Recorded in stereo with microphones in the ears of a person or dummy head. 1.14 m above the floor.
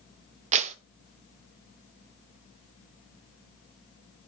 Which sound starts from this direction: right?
A clap, at 0.5 s.